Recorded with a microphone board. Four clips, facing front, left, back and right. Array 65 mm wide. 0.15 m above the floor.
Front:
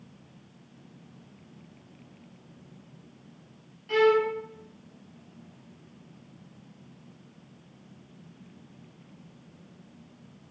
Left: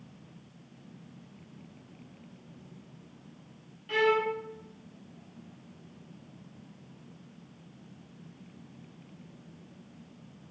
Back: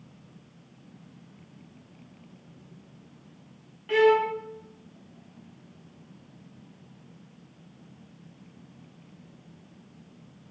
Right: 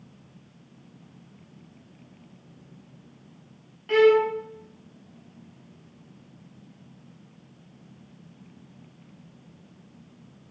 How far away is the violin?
About 0.5 m.